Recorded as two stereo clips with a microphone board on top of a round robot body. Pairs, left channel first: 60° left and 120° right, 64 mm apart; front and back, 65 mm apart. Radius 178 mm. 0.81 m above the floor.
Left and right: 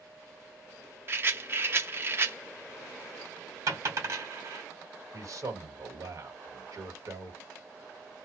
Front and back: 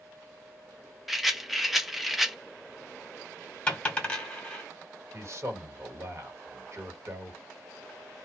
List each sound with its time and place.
1.1 s a rattle: 95° right, 1.0 m
3.7 s a dropped coin: 75° right, 1.2 m
5.1 s a man speaking: 145° right, 1.7 m